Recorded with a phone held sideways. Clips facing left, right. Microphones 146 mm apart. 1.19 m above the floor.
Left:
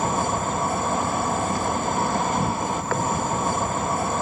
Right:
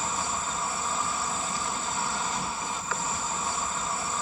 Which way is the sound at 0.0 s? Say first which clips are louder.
Left 9 dB; 55° left (ahead or behind).